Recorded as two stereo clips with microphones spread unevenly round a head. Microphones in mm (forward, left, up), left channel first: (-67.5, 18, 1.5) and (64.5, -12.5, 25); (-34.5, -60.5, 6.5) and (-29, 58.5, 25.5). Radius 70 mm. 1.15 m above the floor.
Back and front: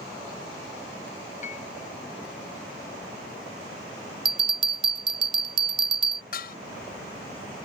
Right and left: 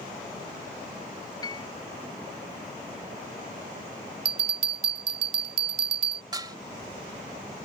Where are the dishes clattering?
140° left.